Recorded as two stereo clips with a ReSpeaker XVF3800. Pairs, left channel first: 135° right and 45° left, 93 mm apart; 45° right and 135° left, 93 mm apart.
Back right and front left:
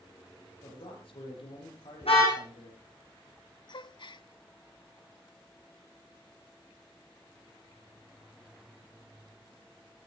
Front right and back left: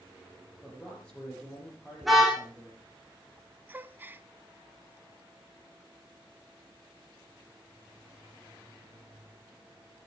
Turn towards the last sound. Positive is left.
turn(degrees=-160)